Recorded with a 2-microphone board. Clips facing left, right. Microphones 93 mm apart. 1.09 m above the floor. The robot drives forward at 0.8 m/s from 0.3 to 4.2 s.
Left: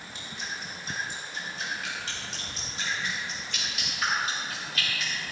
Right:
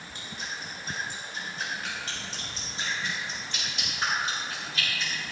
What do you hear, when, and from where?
0.1 s dripping: 50° right (ahead or behind), 5 m; by 5.1 s 30° right (ahead or behind), 7 m